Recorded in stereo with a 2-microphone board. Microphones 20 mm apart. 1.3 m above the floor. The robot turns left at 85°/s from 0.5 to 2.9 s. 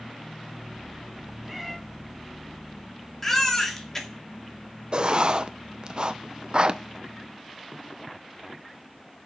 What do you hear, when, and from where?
1.4 s a cat meowing: 15° right (ahead or behind), 2.5 m; by 1.8 s 10° left (ahead or behind), 2.5 m
3.2 s a baby crying: 20° left (ahead or behind), 2.5 m
4.9 s writing: 40° right (ahead or behind), 0.8 m